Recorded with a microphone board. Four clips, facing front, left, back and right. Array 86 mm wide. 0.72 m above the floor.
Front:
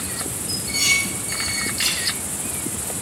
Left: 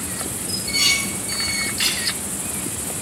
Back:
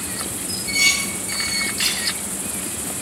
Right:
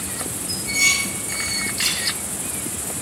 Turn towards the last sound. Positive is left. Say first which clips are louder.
# right 2 dB, back 2 dB
turn(degrees=100)